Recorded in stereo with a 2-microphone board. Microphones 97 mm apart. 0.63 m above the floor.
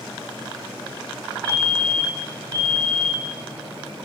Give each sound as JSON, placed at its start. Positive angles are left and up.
{"t": 1.4, "sound": "a fire alarm", "side_deg": -45, "distance_m": 3.5}